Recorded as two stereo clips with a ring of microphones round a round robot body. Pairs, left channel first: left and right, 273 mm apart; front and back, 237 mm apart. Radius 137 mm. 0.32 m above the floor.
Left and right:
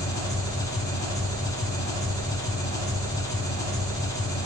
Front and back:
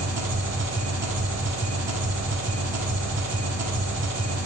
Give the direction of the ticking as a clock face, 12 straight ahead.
I don't hear ticking.